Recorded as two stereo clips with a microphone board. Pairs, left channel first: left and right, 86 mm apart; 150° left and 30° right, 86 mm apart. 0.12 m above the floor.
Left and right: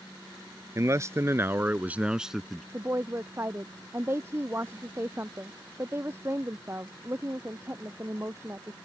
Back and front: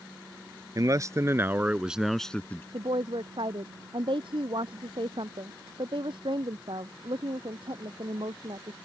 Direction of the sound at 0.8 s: 50° right.